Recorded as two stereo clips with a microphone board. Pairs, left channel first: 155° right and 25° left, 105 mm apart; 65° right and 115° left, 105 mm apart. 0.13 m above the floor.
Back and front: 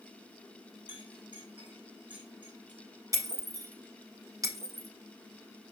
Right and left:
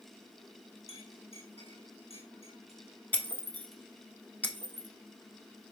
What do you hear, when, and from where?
0.9 s a clink: 55° right, 4.5 m
3.1 s breaking glass: 5° right, 1.1 m